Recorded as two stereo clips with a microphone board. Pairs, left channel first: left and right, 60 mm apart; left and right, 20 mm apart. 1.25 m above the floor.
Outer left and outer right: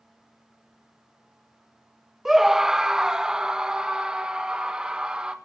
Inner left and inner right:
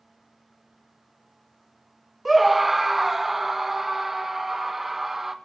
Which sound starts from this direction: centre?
A scream, at 2.2 s.